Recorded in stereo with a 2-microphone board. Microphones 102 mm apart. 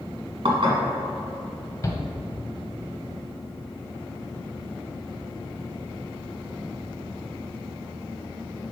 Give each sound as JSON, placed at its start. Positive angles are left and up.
{"t": 0.5, "sound": "dishes clattering", "side_deg": -60, "distance_m": 1.4}
{"t": 1.8, "sound": "a shout", "side_deg": 30, "distance_m": 1.0}